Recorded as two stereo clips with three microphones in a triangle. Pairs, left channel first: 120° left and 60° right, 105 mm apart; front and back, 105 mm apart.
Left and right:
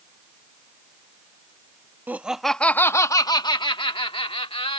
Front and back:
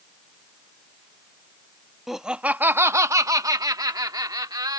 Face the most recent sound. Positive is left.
turn(degrees=130)